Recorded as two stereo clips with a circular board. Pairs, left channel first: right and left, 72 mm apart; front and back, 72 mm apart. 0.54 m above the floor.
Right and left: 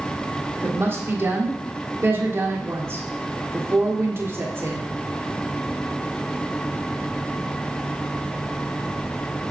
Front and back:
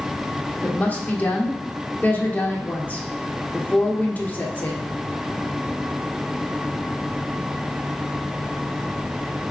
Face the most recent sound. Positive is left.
turn(degrees=55)